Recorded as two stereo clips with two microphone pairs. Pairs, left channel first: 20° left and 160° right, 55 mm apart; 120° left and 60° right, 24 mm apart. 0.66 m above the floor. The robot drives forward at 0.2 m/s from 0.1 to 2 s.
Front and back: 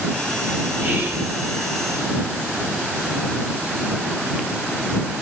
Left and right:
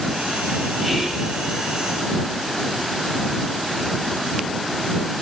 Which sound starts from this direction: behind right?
Whispering, at 0.8 s.